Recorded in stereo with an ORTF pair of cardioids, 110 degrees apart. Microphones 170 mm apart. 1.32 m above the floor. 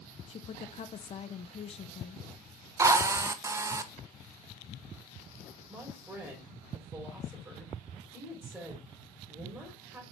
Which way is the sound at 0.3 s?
35° left.